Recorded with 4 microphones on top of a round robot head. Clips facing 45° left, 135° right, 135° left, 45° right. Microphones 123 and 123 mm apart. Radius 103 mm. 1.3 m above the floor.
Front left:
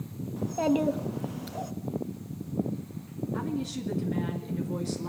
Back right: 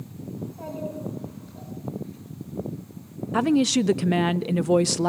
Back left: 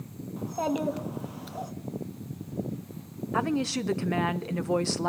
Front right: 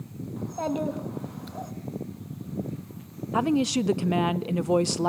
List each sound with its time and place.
0.4 s a child speaking: 50° left, 1.6 m
3.3 s a woman speaking: 120° right, 0.6 m